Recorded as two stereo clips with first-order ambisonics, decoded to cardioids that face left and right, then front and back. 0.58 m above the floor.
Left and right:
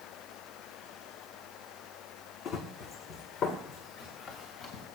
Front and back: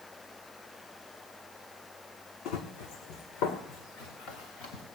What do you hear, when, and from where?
2.5 s running footsteps: 25° left, 2 m; by 4.8 s 30° left, 4 m